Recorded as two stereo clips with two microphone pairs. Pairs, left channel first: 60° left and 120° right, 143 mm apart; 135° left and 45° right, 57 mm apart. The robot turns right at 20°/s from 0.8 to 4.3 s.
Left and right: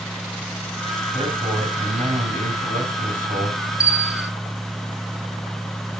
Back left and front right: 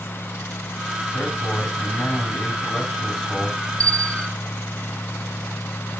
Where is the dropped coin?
I don't hear a dropped coin.